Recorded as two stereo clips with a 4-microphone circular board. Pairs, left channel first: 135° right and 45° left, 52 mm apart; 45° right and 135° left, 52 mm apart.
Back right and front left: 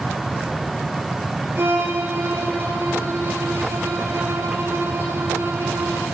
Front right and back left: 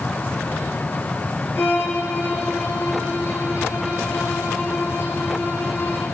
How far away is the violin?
About 4.5 m.